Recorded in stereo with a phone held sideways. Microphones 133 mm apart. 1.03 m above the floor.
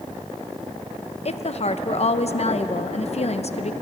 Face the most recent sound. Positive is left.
turn(degrees=55)  # may be behind; listen again after turning